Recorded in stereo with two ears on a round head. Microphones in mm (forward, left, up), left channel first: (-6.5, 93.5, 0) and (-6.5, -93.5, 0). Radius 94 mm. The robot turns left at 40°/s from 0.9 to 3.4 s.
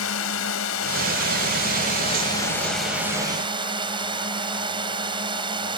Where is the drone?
75° left; by 5.8 s 25° right.